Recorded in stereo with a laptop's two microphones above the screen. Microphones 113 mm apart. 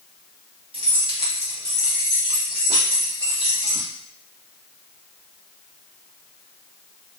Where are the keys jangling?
50° right (ahead or behind), 1.4 m; by 3.9 s 90° right, 2.5 m.